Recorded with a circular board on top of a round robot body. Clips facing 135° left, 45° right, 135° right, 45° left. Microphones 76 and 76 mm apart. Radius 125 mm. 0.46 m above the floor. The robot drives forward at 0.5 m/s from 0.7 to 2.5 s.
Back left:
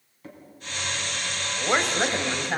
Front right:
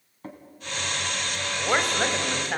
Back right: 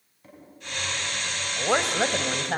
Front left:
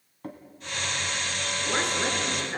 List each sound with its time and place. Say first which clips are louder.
0.2 s a drawer: front right 3 dB, front left 10 dB; 5° left, 3 m
1.6 s a woman speaking: even, back right 5 dB; 130° right, 2.5 m; by 2.6 s 140° right, 3 m